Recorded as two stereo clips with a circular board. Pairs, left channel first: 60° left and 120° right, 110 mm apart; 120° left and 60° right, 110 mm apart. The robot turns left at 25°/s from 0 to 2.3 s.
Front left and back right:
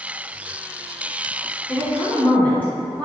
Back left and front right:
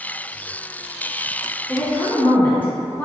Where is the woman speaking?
115° left, 1.0 m; by 3.0 s 100° left, 1.0 m.